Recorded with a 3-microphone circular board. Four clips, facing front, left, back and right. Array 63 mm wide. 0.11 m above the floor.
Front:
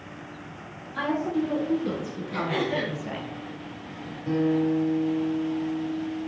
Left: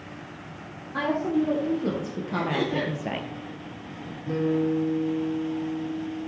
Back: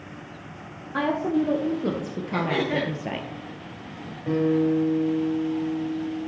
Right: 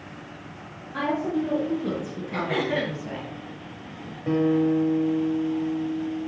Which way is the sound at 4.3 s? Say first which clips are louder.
Right 3 dB, back 2 dB; 110° right.